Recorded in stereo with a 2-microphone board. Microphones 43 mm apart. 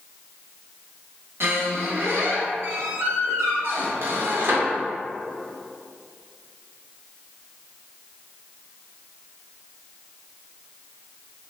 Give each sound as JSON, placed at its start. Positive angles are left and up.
{"t": 1.4, "sound": "a squeak", "side_deg": -60, "distance_m": 0.6}